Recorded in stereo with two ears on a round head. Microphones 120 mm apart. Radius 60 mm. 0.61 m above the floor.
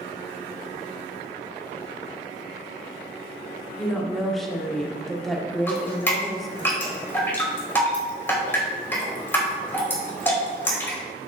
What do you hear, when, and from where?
3.8 s a woman speaking: centre (ahead or behind), 1.1 m
5.7 s dripping: 20° left (ahead or behind), 2 m